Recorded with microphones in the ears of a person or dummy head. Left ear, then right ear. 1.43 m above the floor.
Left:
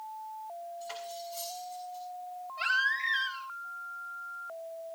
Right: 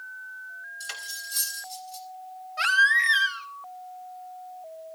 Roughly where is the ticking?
No ticking in this recording.